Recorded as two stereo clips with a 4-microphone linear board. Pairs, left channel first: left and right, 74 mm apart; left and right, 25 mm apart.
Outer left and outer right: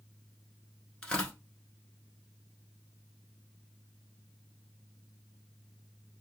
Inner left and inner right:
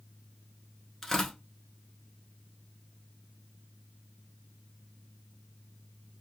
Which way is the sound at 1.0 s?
15° left (ahead or behind).